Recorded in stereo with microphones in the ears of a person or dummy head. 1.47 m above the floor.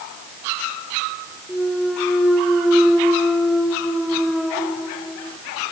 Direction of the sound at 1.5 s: 5° right (ahead or behind).